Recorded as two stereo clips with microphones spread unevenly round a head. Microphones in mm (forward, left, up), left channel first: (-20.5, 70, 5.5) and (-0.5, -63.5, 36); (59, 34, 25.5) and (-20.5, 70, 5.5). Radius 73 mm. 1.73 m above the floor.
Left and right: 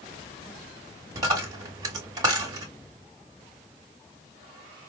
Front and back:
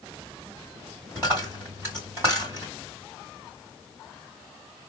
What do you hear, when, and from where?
1.1 s a dropped coin: 125° right, 1.5 m